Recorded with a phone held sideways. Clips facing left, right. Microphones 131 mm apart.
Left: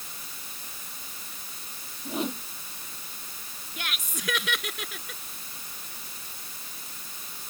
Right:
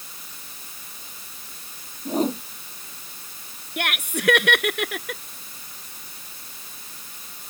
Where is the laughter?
65° right (ahead or behind).